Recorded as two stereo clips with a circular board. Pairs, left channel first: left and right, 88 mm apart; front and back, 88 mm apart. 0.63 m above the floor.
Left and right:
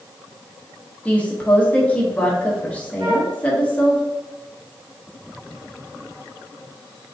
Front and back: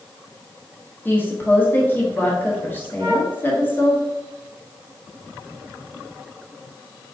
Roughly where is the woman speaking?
Ahead left.